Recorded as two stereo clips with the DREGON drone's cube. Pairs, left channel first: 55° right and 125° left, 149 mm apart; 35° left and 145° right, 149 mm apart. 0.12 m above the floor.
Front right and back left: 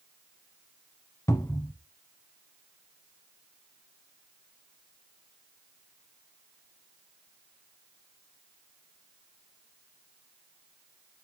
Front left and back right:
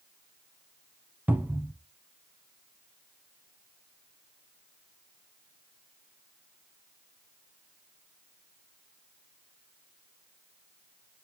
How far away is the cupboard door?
About 0.8 m.